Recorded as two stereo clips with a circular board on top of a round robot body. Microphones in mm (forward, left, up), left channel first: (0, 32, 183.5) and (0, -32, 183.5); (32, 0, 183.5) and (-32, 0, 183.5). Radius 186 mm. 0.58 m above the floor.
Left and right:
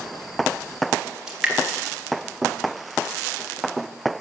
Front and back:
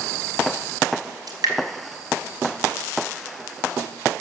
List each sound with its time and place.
1.3 s dripping: 170° right, 2.5 m